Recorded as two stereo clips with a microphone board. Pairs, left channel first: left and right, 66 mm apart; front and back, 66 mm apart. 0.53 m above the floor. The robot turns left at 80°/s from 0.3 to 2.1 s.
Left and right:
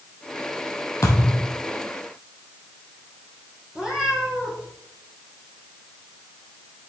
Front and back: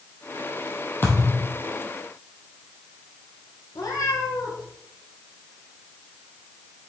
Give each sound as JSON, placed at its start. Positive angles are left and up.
{"t": 1.0, "sound": "a thud", "azimuth_deg": 55, "distance_m": 3.0}
{"t": 3.8, "sound": "a cat meowing", "azimuth_deg": -15, "distance_m": 4.0}